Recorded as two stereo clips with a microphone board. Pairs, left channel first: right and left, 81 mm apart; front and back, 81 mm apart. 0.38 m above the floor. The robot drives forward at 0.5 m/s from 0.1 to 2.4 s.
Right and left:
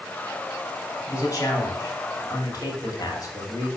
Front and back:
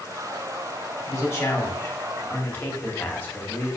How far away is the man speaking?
About 2.5 m.